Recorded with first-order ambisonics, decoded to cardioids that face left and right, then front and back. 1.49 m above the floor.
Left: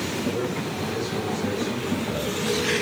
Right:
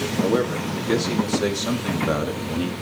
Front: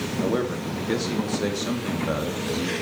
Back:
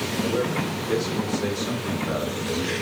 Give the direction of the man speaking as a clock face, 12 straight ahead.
2 o'clock.